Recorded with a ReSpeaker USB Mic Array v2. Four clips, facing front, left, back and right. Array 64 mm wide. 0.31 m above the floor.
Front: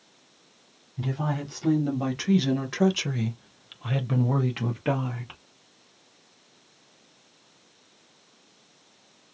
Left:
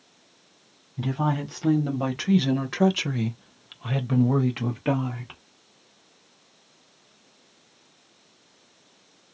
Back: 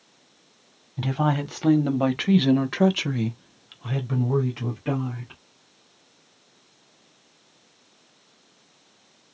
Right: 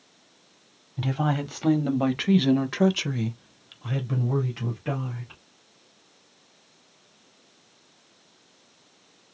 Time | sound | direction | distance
1.0 | a woman speaking | 155° right | 1.5 m